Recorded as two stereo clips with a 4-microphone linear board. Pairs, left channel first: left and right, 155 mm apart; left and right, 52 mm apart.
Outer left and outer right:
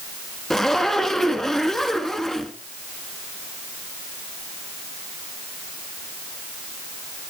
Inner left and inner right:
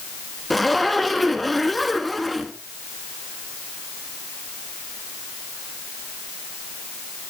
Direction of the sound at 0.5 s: 5° left (ahead or behind).